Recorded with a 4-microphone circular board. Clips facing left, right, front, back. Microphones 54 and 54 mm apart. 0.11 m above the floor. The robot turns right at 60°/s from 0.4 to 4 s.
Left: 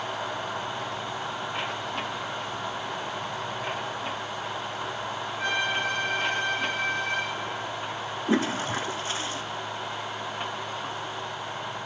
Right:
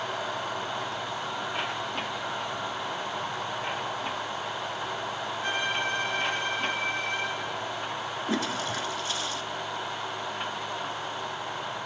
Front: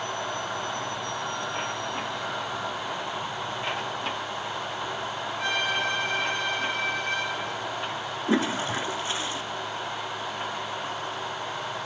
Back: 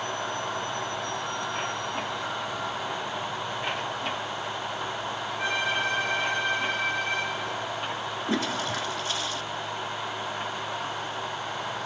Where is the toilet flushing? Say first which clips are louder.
Left 5 dB, front 4 dB; 55° left, 0.5 m.